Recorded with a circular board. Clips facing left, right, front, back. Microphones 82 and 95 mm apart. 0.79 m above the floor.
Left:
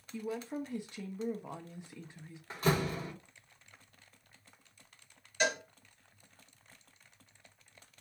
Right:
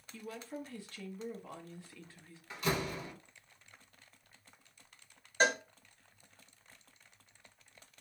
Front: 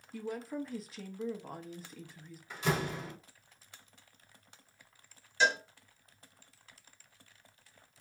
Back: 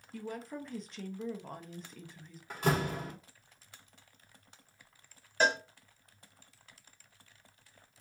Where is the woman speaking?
80° left, 0.7 m.